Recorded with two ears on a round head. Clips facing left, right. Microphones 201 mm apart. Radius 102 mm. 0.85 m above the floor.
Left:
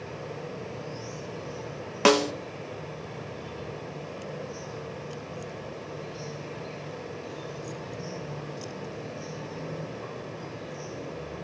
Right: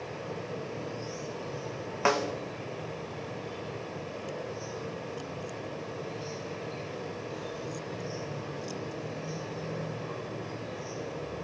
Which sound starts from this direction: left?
A snare drum, at 2.0 s.